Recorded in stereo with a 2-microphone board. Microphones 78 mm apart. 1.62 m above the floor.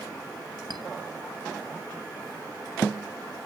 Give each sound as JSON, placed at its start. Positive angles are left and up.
{"t": 0.7, "sound": "a clink", "side_deg": -60, "distance_m": 1.4}